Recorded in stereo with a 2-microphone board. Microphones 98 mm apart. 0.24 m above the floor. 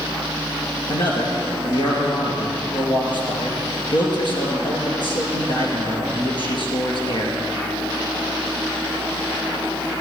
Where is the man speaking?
55° left (ahead or behind), 3.5 m.